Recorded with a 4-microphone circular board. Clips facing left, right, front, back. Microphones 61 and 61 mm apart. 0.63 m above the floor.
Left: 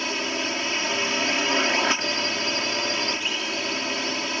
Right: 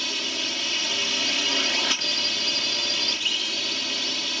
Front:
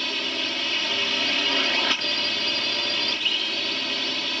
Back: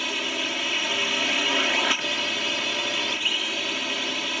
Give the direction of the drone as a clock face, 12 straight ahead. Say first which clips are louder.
Left 4 dB, back 1 dB; 8 o'clock.